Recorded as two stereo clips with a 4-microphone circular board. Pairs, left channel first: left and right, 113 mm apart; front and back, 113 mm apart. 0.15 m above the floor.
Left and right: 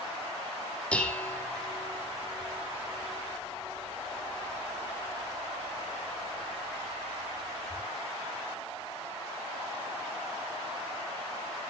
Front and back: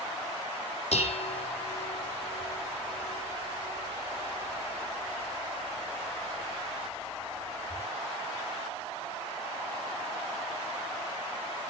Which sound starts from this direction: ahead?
Dishes clattering, at 0.9 s.